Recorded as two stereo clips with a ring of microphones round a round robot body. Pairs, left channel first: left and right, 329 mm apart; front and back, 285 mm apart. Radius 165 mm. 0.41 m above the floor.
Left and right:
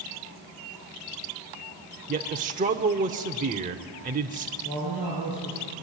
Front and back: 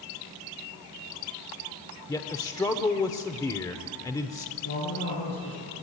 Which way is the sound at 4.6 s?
35° left.